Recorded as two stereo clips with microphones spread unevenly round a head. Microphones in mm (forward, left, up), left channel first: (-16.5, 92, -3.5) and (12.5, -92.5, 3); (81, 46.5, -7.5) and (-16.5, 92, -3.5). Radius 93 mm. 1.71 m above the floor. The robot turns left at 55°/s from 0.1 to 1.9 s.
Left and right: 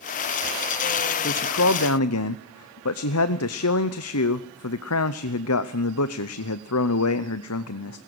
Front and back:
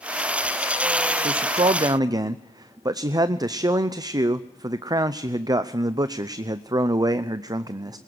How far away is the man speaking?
About 0.7 m.